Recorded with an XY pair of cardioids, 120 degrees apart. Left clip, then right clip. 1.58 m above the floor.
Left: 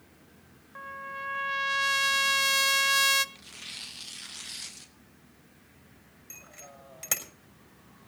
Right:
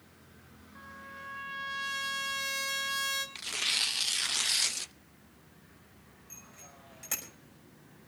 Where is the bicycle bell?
45° left, 5.5 m.